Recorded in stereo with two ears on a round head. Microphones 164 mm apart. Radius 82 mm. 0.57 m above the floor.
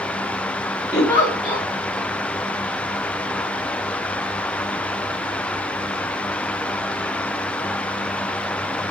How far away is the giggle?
About 1.2 m.